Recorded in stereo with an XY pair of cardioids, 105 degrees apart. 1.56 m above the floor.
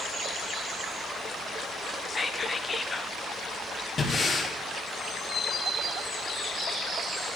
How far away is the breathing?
About 2.5 m.